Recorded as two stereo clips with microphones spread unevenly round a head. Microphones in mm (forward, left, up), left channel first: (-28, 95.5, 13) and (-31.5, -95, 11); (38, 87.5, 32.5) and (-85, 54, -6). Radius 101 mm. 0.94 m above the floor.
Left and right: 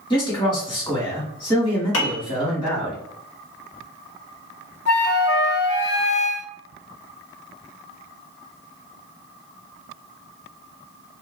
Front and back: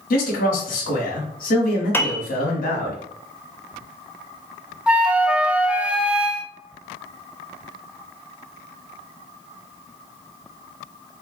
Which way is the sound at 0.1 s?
25° left.